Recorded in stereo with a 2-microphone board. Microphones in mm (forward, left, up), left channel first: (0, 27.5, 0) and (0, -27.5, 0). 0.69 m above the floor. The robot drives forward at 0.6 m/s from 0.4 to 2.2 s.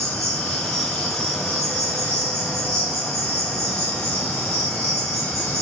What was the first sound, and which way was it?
An insect, 65° right (ahead or behind).